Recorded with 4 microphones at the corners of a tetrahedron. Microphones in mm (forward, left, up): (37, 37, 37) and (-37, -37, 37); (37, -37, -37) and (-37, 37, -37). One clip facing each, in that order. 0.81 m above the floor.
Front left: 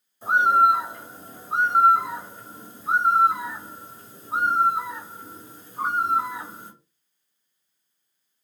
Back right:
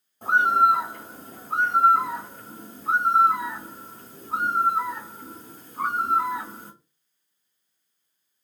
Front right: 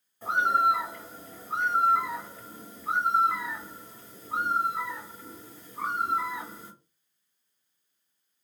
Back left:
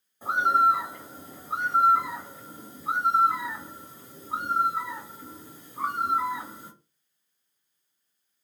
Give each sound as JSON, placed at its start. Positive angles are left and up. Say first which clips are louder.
{"t": 0.2, "sound": "a bird", "louder": "front left 1 dB, back left 2 dB", "azimuth_deg": -155, "distance_m": 1.8}